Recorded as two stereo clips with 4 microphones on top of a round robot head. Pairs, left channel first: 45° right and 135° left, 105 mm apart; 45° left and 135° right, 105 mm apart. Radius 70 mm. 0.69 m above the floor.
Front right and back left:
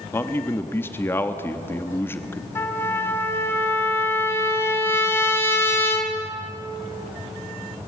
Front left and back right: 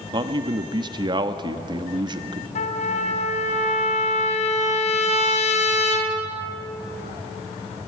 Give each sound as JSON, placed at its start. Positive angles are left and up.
{"t": 0.1, "sound": "a man speaking", "azimuth_deg": -110, "distance_m": 1.1}
{"t": 2.5, "sound": "a trumpet", "azimuth_deg": 25, "distance_m": 3.0}